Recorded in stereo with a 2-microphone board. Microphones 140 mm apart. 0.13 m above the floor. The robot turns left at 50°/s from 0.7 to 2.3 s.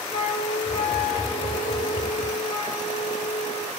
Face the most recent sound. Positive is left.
turn(degrees=45)